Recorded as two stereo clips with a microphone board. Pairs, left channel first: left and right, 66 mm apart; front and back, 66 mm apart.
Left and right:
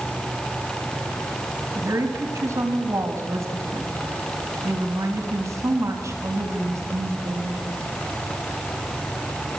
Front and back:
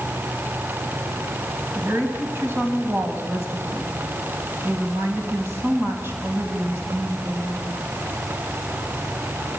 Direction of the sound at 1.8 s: 130° right.